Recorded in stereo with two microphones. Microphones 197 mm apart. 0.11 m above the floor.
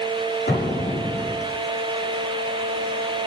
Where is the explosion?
60° left (ahead or behind), 6 m.